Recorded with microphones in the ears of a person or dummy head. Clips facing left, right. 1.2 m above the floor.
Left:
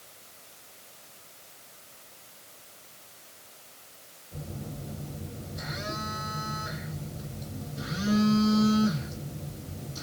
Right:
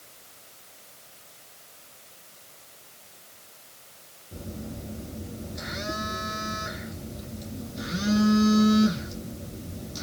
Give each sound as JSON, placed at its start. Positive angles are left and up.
{"t": 4.3, "sound": "a phone buzzing", "side_deg": -30, "distance_m": 2.0}